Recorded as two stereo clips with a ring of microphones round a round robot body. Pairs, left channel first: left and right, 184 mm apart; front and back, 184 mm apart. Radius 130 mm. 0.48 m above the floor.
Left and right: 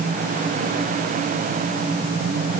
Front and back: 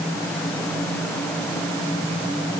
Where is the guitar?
No guitar in this recording.